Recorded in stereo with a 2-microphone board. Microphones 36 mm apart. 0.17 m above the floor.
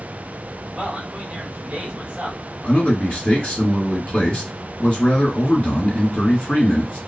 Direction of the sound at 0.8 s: 25° right (ahead or behind).